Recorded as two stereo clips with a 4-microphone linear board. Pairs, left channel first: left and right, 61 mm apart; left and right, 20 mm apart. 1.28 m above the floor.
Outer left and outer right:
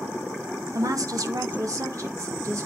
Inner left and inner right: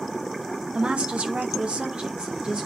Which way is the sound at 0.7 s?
60° right (ahead or behind).